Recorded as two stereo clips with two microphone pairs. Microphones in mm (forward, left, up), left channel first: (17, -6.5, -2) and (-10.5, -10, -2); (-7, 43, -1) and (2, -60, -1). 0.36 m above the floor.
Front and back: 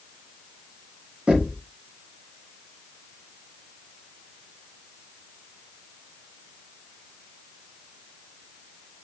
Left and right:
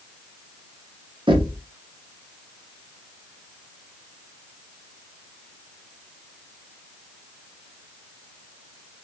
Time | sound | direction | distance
1.3 | knocking | 120° right | 3 m